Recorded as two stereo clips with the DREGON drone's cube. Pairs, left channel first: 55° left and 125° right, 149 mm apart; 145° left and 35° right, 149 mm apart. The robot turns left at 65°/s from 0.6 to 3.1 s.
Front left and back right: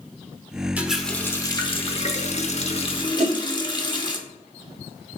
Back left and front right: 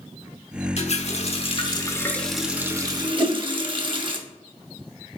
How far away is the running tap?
About 0.8 m.